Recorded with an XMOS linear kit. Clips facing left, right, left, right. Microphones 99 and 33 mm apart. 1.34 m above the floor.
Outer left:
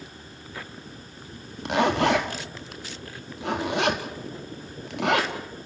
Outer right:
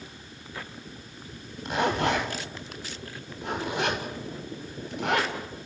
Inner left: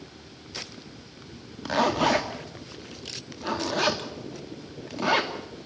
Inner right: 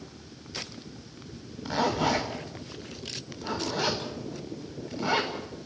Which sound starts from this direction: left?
A zipper, at 1.6 s.